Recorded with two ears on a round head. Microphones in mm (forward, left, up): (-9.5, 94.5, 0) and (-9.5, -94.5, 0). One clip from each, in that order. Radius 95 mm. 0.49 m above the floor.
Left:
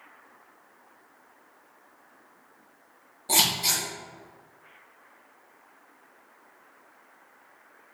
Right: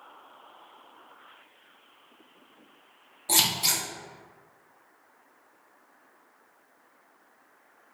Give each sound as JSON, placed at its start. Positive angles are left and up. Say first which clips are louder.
{"t": 3.3, "sound": "scissors", "louder": "left 1 dB", "side_deg": -20, "distance_m": 0.9}